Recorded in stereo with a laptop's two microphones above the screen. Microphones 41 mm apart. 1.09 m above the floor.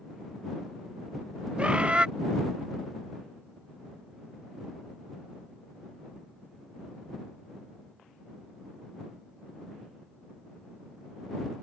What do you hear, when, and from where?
1.6 s a bird: 25° right (ahead or behind)